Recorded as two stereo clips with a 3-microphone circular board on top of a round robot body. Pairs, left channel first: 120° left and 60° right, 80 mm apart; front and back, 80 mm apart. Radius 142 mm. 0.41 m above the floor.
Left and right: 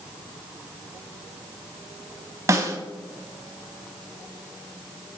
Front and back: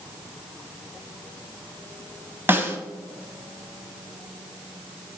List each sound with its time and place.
2.5 s a snare drum: 115° right, 1.5 m